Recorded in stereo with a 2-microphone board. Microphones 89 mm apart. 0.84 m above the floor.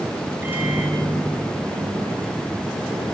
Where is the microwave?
20° right (ahead or behind), 4 m.